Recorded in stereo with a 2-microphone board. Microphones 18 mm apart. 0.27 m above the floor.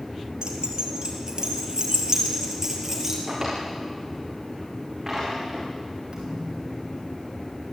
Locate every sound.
0.4 s keys jangling: 55° right (ahead or behind), 5 m; by 3.2 s 15° right (ahead or behind), 5.5 m
3.3 s a drawer: 10° right (ahead or behind), 6.5 m
6.1 s a thud: 40° right (ahead or behind), 6 m